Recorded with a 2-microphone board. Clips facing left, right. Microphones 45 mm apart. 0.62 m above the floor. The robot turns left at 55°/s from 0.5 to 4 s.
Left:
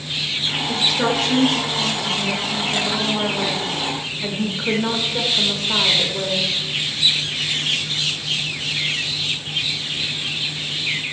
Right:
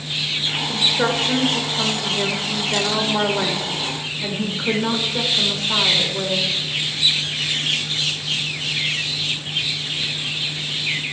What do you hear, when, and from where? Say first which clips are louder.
0.7 s a woman speaking: even; straight ahead, 1.8 m; by 6.5 s 175° left, 1.8 m